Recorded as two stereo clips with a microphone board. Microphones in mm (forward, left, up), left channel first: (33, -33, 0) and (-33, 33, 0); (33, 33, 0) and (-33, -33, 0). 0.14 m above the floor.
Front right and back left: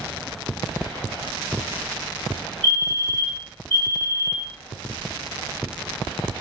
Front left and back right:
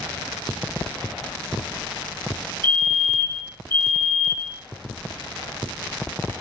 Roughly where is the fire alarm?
Ahead left.